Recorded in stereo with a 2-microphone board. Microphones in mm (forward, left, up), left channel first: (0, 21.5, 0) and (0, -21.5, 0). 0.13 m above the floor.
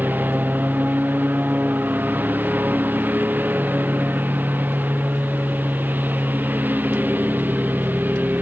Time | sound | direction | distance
0.0 | a lawn mower | 45° right (ahead or behind) | ?